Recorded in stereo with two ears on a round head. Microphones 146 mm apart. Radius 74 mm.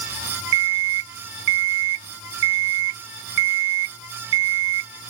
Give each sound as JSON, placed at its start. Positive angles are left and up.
{"t": 0.5, "sound": "an alarm clock", "side_deg": -85}